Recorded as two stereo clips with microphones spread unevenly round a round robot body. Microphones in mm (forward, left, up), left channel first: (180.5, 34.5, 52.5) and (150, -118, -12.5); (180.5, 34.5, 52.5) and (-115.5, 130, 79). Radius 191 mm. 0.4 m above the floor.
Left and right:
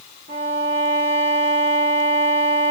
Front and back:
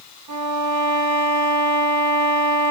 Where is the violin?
130° left, 3.5 m.